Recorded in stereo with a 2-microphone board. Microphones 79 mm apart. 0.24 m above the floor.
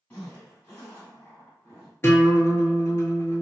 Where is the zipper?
20° left (ahead or behind), 1.9 m.